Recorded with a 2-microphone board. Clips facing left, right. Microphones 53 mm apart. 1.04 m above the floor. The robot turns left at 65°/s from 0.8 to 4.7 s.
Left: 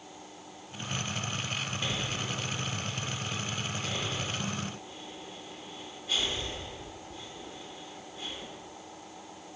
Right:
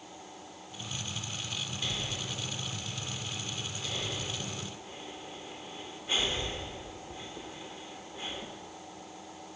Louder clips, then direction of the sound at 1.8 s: Left 2 dB; 20° left (ahead or behind).